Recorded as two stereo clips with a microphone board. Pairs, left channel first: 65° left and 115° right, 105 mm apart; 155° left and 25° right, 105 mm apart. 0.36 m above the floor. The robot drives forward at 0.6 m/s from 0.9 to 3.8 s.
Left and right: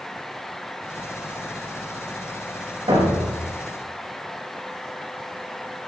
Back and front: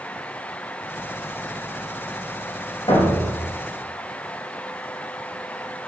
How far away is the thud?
About 5.5 m.